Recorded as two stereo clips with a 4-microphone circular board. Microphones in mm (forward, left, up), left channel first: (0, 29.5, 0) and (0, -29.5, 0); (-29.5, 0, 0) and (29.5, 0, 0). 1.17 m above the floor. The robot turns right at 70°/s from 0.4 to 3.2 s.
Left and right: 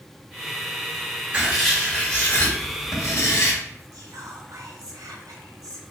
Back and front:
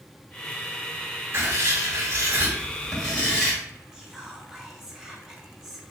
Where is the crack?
I don't hear a crack.